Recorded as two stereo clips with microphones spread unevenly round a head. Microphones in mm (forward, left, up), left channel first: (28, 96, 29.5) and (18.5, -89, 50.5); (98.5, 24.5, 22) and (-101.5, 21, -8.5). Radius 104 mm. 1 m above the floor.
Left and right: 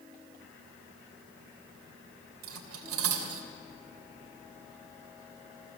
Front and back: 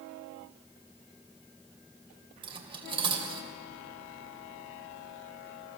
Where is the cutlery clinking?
110° right, 2.5 m.